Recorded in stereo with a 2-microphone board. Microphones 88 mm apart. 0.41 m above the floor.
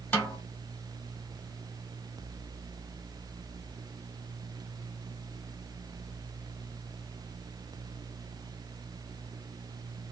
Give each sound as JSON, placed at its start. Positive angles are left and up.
{"t": 0.1, "sound": "a snare drum", "side_deg": 20, "distance_m": 1.3}